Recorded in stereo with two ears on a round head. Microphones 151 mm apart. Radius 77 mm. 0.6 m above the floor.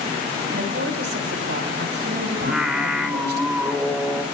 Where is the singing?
Centre (ahead or behind), 0.9 m.